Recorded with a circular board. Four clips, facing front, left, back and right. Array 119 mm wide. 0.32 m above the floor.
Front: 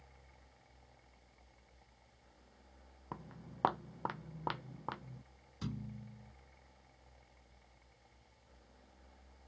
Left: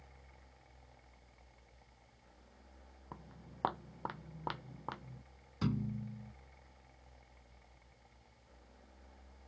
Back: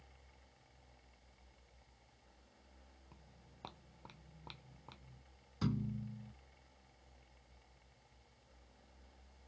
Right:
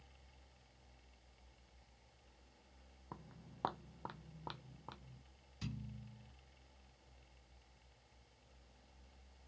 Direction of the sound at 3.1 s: 5° left.